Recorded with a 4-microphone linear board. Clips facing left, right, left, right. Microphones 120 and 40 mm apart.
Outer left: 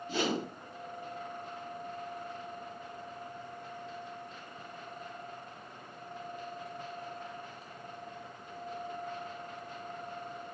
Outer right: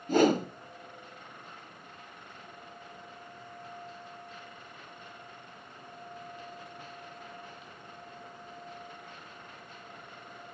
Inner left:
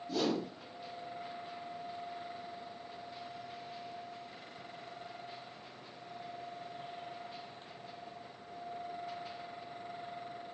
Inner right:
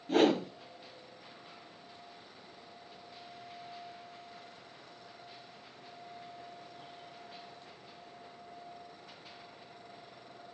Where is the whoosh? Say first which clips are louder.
Outer right 9 dB, inner right 7 dB; 50° right (ahead or behind), 1.0 m.